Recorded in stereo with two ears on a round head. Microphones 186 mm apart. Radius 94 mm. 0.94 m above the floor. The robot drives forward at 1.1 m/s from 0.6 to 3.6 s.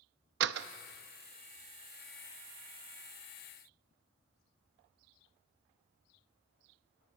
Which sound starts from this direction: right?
A door slam, at 0.4 s.